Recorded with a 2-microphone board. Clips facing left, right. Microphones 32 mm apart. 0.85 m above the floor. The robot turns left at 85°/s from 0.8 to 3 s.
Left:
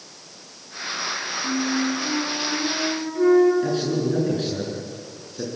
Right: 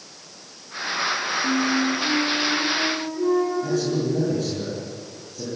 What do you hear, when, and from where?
1.4 s a flute: 130° right, 6.5 m; by 3.5 s 100° left, 6.5 m
3.6 s a man speaking: 60° left (ahead or behind), 9 m